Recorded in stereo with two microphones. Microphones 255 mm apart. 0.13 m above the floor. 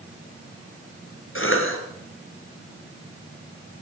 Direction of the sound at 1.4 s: 55° left (ahead or behind).